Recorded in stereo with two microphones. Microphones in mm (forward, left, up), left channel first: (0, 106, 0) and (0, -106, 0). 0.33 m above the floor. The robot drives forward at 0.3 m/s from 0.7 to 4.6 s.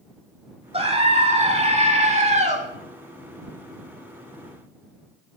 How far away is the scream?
About 1.4 m.